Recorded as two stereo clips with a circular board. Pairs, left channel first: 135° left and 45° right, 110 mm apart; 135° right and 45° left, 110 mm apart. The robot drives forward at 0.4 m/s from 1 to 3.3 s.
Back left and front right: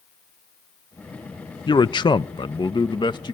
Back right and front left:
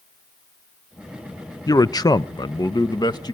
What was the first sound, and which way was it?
A man speaking, 170° left.